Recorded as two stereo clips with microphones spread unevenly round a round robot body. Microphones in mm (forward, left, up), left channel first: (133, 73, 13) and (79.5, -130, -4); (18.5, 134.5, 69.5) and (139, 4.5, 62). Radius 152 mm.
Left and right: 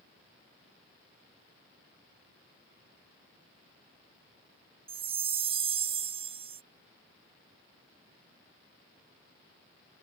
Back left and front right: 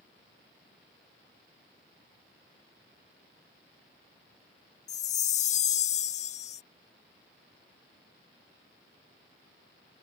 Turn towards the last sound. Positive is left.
turn(degrees=-170)